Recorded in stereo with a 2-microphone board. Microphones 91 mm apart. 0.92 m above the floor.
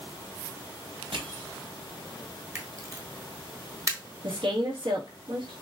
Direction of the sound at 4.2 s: 70° right (ahead or behind).